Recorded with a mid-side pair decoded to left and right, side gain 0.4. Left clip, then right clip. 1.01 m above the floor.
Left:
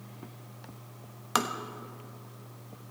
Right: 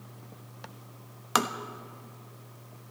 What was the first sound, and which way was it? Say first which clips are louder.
Tapping: right 2 dB; 20° right.